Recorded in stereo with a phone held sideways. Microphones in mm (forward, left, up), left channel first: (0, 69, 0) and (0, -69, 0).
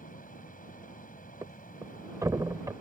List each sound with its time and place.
0.0 s a fan: 80° left
1.4 s a thud: 25° right (ahead or behind)